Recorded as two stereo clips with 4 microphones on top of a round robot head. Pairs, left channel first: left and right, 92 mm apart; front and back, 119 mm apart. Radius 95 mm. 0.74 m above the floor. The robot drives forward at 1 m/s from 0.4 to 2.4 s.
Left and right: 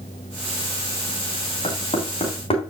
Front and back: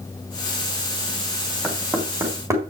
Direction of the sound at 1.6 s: 100° left.